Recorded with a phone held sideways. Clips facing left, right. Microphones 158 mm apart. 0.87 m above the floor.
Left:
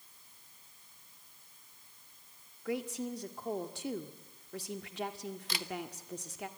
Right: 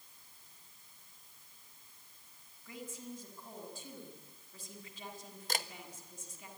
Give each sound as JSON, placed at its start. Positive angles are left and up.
{"t": 2.6, "sound": "a woman speaking", "side_deg": 75, "distance_m": 1.8}
{"t": 5.5, "sound": "a camera shutter", "side_deg": -45, "distance_m": 1.0}